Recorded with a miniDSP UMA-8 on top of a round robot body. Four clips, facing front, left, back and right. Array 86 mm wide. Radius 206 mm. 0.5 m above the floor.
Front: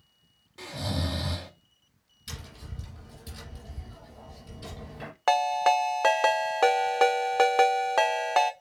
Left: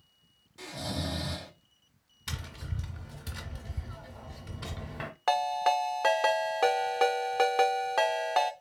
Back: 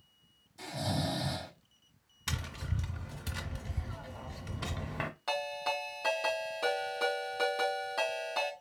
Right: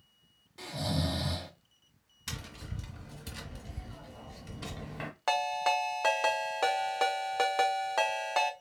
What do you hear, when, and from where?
0.6 s snoring: 25° right, 3 m
2.3 s tapping: 170° left, 0.9 m
5.3 s a ringtone: 5° left, 0.6 m